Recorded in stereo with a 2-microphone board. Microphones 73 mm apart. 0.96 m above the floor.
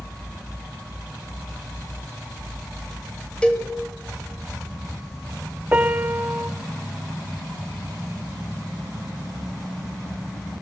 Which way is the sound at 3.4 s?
15° left (ahead or behind).